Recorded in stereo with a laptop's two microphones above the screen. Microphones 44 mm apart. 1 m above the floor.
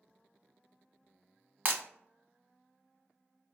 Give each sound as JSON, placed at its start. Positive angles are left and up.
{"t": 1.6, "sound": "breaking glass", "side_deg": -45, "distance_m": 0.9}